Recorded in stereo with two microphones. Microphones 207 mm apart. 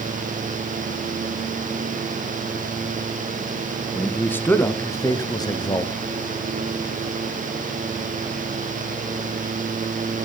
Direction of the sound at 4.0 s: 10° left (ahead or behind).